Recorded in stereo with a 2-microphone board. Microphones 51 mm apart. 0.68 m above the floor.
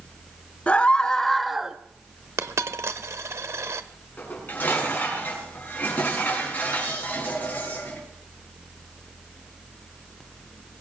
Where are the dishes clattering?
40° left (ahead or behind), 5.5 m.